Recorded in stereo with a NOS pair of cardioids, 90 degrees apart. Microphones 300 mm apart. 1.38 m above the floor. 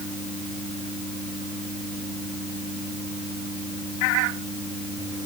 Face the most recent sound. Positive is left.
No sound to turn to.